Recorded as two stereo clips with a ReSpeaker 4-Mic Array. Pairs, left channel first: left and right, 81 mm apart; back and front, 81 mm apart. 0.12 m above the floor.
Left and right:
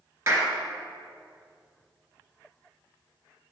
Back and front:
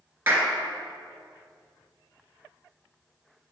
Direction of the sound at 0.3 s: 50° right.